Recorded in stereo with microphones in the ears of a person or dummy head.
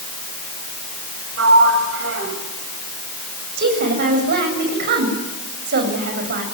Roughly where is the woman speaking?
Right.